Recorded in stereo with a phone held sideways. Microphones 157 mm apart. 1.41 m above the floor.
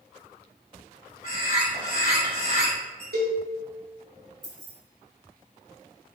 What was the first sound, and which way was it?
A bird, 60° left (ahead or behind).